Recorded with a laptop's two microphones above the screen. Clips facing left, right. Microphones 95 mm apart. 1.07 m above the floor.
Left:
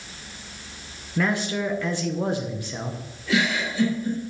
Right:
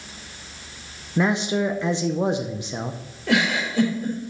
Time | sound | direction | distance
1.2 | a man speaking | 20° right (ahead or behind) | 0.7 m
3.3 | a giggle | 65° right (ahead or behind) | 3.5 m